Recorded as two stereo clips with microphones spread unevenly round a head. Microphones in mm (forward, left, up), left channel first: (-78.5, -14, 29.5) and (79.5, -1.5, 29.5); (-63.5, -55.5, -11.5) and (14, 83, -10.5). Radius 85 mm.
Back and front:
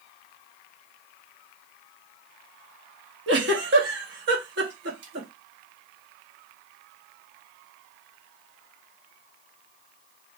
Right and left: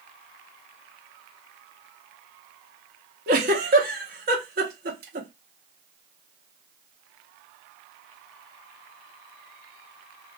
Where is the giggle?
25° left, 0.9 m.